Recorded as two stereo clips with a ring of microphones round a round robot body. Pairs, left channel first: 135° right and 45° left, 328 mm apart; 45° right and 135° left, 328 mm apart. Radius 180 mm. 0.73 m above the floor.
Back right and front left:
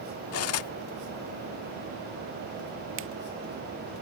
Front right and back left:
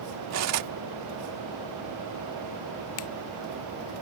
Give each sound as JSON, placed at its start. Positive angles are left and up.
{"t": 0.3, "sound": "cutlery clinking", "azimuth_deg": 180}
{"t": 3.0, "sound": "a finger snap", "azimuth_deg": -5}